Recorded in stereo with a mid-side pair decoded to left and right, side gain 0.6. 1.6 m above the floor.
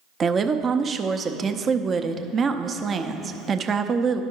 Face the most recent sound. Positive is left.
turn(degrees=-30)